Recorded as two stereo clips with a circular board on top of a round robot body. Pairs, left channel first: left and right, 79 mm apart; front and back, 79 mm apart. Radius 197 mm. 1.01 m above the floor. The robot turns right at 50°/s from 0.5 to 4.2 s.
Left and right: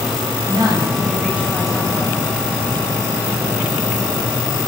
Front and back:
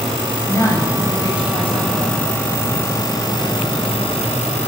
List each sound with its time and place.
0.4 s a woman speaking: 60° right, 7.5 m; by 2.2 s 30° left, 7.5 m